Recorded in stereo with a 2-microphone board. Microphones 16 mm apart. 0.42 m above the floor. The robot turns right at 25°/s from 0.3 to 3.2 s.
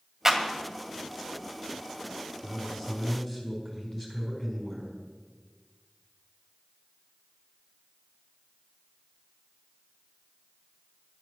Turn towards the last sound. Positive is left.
turn(degrees=25)  # may be behind; listen again after turning